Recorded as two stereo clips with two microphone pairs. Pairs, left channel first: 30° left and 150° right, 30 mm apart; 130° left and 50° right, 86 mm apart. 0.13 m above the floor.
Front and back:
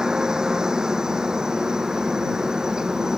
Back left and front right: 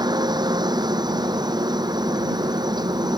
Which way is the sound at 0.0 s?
85° right.